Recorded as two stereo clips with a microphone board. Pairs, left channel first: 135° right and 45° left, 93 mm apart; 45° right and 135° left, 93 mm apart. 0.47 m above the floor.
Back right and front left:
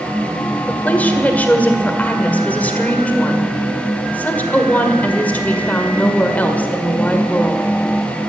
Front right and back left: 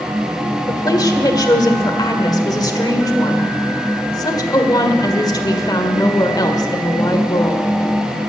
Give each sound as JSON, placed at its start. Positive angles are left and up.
{"t": 0.7, "sound": "a woman speaking", "azimuth_deg": -70, "distance_m": 1.7}